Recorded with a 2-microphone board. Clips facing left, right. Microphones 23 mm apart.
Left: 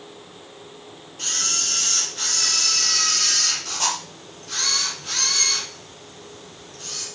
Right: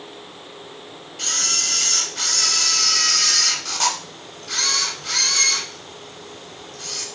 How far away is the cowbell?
I don't hear a cowbell.